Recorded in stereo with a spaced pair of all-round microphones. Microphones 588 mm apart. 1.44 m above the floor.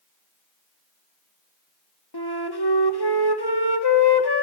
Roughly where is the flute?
Left.